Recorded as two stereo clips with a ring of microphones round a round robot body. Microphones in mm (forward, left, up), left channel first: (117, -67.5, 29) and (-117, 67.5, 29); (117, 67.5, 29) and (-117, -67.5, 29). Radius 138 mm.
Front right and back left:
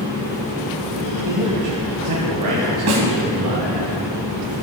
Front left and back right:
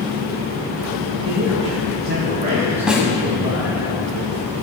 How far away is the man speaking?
About 2 m.